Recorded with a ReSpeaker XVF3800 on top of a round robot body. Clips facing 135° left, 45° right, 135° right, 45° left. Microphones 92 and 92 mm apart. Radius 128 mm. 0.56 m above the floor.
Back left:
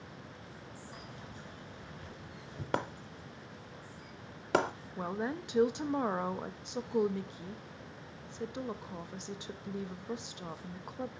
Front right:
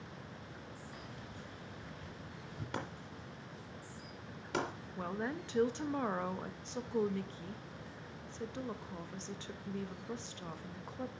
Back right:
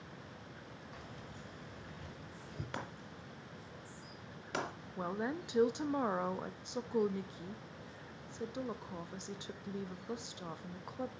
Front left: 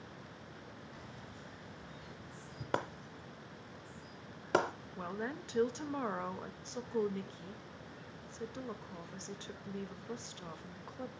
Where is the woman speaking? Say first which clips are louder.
Back left 3 dB, back right 3 dB; straight behind, 0.7 m.